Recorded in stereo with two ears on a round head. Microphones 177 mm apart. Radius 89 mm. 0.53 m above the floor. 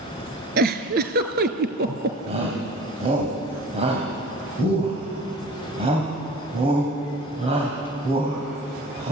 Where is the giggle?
55° right (ahead or behind), 1.7 m.